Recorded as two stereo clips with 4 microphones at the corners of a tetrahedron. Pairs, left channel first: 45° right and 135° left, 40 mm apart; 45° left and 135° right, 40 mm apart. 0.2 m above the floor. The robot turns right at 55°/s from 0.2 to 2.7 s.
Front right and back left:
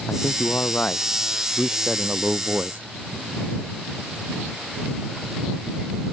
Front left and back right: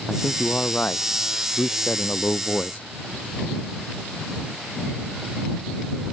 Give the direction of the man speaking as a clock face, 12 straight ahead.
1 o'clock.